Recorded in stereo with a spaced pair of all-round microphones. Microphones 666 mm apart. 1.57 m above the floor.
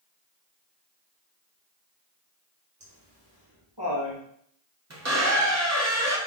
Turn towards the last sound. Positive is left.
turn(degrees=-25)  # may be behind; listen again after turning